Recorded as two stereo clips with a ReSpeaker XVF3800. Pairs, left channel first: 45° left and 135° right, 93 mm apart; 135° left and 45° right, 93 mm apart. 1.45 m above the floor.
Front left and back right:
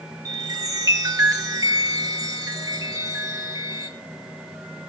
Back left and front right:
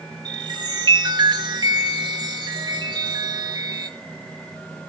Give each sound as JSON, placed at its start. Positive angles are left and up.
{"t": 0.2, "sound": "a chime", "azimuth_deg": -85, "distance_m": 2.5}